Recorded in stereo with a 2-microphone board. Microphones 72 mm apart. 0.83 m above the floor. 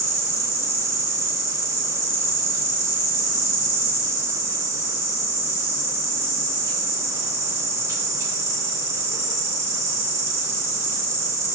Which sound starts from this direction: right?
An insect, at 0.0 s.